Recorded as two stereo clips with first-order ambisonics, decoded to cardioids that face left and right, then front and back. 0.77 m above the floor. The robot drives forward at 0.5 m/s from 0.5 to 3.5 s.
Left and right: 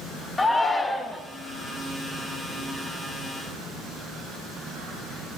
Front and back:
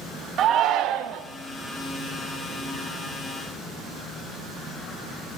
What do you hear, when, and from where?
0.4 s a shout: 160° left, 0.6 m; by 1.2 s 170° left, 0.9 m